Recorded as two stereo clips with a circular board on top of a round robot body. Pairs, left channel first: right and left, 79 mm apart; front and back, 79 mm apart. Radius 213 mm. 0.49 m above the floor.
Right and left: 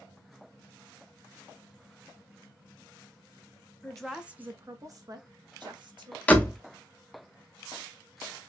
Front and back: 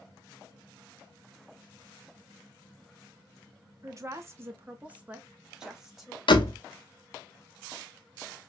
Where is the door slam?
20° right, 0.7 m.